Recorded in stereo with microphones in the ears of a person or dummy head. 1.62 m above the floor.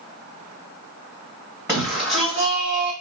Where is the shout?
20° right (ahead or behind), 1.2 m; by 2.9 s 40° right (ahead or behind), 2 m.